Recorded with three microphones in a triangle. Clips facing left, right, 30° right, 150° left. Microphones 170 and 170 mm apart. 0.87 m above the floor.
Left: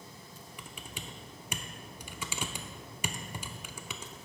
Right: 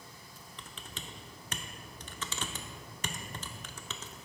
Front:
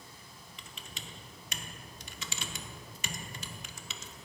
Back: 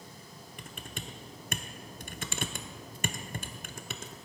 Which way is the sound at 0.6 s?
165° left.